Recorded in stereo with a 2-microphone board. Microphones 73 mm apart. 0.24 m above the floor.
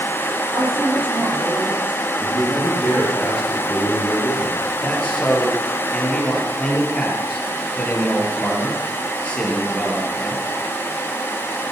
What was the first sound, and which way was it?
A woman speaking, 25° right (ahead or behind).